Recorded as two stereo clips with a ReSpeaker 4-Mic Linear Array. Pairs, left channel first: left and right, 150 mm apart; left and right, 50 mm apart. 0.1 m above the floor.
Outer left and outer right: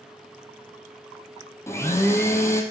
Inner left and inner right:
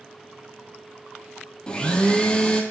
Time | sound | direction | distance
1.7 | a blender | 20° left (ahead or behind) | 1.0 m